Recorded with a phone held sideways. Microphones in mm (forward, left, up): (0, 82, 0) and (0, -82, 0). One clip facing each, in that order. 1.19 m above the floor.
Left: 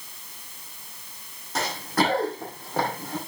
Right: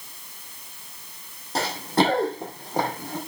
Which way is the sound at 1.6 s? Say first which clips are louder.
Right 3 dB; 30° right (ahead or behind).